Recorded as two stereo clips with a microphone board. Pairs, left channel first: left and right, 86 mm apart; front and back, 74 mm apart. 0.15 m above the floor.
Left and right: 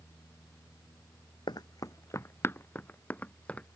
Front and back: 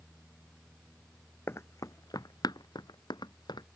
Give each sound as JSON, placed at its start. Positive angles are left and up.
{"t": 1.5, "sound": "running footsteps", "azimuth_deg": 55}